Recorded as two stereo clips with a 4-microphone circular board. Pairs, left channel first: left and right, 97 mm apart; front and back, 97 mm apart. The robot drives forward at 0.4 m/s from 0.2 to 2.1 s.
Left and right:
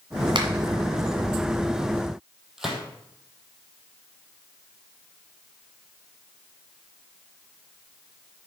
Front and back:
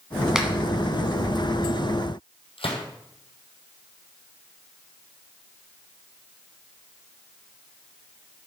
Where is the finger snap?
95° right, 1.8 m; by 0.5 s 100° right, 1.8 m.